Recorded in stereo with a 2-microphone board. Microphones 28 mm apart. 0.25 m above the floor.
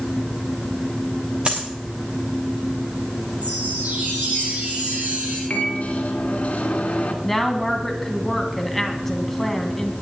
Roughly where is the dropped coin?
Right.